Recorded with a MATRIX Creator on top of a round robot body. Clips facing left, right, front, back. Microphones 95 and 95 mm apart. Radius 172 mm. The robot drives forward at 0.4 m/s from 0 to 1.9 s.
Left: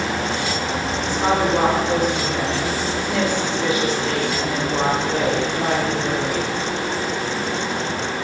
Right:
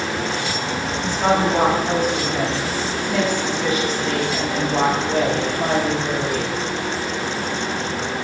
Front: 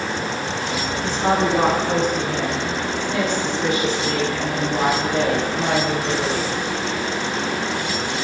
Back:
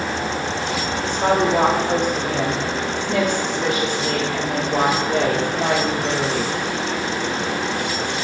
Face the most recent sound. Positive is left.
turn(degrees=170)